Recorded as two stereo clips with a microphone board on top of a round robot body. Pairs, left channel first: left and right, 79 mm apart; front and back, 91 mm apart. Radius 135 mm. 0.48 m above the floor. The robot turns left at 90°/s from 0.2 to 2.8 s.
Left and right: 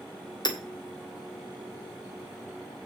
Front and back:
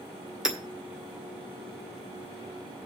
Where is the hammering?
100° left, 2 m; by 0.6 s 85° left, 2 m.